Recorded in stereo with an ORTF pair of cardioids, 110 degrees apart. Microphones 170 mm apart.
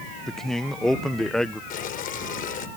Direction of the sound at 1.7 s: 55° left.